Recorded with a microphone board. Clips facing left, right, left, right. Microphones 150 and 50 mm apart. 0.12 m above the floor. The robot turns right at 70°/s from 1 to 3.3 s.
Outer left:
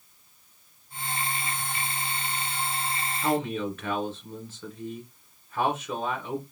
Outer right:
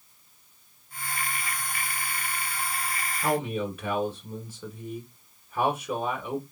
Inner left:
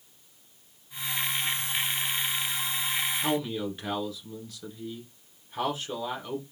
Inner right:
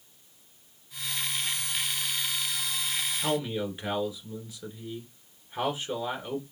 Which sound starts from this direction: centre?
A man speaking, at 3.2 s.